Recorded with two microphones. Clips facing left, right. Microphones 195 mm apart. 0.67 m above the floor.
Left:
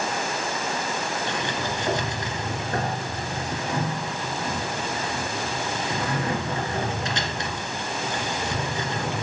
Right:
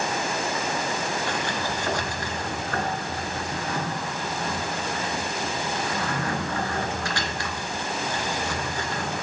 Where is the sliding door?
20° left (ahead or behind), 1.8 m.